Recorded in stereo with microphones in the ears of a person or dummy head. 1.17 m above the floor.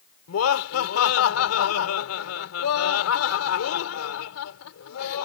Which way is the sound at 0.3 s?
85° left.